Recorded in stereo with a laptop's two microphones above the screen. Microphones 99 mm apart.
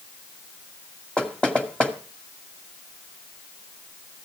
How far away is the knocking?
About 1.9 m.